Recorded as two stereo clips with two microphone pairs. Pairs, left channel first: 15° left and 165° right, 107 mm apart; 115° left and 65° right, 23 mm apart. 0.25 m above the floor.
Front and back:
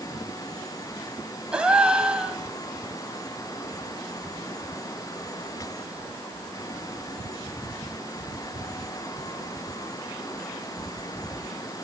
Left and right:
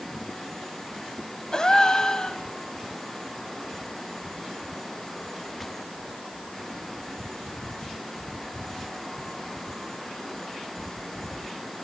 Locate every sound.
1.5 s a gasp: 120° left, 1.7 m